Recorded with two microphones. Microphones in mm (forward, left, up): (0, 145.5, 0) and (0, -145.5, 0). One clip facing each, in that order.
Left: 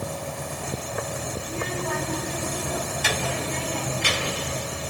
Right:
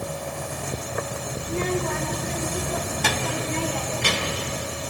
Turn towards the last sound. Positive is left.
turn(degrees=-55)  # may be behind; listen again after turning